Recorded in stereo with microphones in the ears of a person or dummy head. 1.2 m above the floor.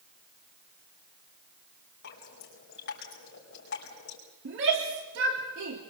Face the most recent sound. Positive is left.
turn(degrees=-60)  # may be behind; listen again after turning